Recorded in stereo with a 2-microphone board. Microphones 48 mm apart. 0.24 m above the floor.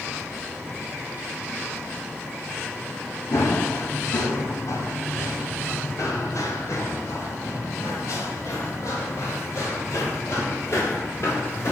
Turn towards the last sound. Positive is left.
turn(degrees=60)  # may be behind; listen again after turning